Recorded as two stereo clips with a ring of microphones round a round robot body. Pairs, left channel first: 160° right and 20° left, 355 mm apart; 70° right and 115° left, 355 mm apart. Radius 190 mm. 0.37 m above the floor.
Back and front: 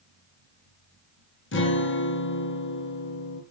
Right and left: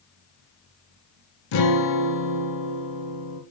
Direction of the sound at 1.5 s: 100° right.